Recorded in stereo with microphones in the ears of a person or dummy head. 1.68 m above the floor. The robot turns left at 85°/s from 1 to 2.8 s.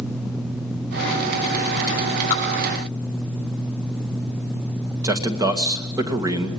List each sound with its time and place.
2.3 s dripping: 10° left (ahead or behind), 8 m; by 2.4 s centre (ahead or behind), 8 m
5.0 s a man speaking: 20° right (ahead or behind), 2 m